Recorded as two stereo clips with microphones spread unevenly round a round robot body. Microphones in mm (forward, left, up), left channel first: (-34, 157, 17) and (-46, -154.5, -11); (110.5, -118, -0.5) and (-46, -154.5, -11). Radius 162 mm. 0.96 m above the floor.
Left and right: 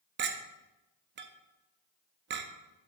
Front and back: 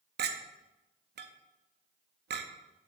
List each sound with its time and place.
0.2 s a clink: 150° right, 0.6 m